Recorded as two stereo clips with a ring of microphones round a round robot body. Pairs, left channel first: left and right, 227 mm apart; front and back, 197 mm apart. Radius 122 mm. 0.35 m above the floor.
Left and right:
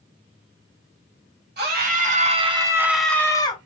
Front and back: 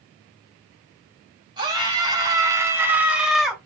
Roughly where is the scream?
Behind right.